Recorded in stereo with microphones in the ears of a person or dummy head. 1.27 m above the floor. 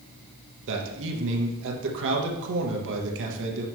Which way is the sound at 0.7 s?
65° right (ahead or behind).